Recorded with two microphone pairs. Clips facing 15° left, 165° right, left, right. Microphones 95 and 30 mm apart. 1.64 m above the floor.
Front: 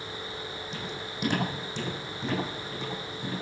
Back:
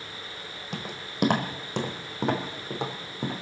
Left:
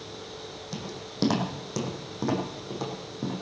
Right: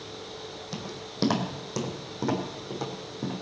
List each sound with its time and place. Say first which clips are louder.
0.7 s footsteps: even, left 1 dB; 170° right, 3 m; by 3.3 s 175° left, 4 m